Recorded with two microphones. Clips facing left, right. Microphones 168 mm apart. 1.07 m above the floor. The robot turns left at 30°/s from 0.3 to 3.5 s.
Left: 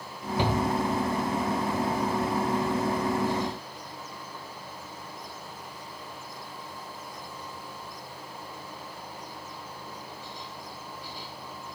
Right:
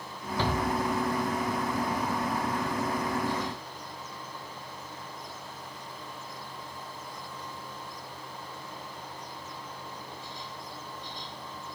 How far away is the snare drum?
No snare drum in this recording.